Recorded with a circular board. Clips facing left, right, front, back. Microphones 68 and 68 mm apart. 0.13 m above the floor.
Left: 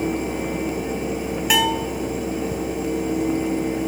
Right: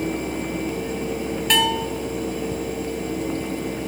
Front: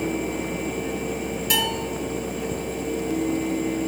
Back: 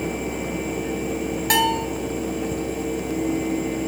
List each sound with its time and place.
1.5 s a bell: 170° left, 2 m